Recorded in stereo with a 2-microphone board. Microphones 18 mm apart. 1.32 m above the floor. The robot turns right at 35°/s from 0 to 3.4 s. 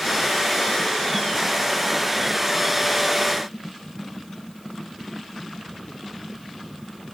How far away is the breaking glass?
I don't hear breaking glass.